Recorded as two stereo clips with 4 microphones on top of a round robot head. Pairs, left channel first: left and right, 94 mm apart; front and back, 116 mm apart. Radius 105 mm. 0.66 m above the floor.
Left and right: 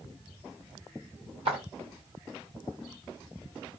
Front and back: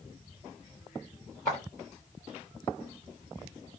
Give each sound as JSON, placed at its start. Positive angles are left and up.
{"t": 1.4, "sound": "footsteps", "azimuth_deg": -70, "distance_m": 1.4}